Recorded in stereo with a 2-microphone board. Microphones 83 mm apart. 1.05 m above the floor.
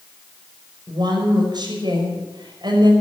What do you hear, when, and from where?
0.9 s a woman speaking: 55° right (ahead or behind), 6 m